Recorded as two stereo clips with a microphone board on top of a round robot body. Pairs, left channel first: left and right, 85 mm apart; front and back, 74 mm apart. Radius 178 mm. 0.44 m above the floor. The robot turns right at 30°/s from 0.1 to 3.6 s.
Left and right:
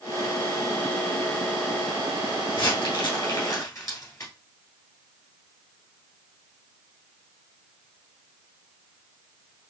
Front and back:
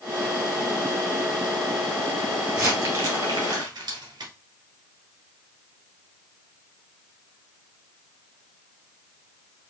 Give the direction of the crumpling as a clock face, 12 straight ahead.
8 o'clock.